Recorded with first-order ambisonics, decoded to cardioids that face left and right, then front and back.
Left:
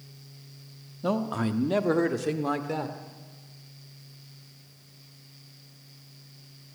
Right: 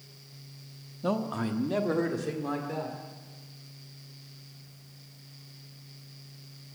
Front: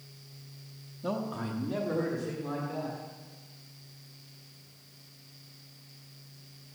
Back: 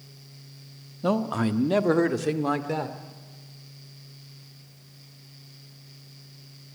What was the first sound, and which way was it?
A man speaking, 170° left.